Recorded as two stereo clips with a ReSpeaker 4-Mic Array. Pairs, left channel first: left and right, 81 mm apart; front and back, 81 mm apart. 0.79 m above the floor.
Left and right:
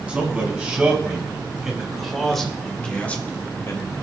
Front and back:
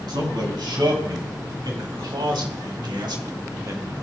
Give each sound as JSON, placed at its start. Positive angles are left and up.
{"t": 0.1, "sound": "a man speaking", "azimuth_deg": -170, "distance_m": 4.5}